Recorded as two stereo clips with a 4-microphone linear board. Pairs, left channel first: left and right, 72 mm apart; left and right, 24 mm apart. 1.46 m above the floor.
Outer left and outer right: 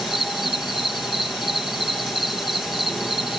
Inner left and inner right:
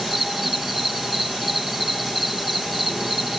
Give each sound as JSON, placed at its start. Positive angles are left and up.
{"t": 0.0, "sound": "an insect", "side_deg": -5}